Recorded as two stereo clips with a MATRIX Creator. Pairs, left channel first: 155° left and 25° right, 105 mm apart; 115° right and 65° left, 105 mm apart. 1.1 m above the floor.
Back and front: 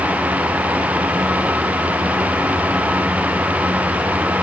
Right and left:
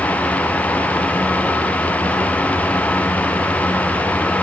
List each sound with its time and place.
Only background noise.